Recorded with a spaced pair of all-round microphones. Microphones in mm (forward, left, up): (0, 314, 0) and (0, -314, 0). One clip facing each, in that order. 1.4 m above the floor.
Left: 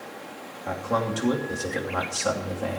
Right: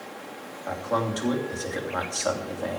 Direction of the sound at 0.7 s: 50° left (ahead or behind).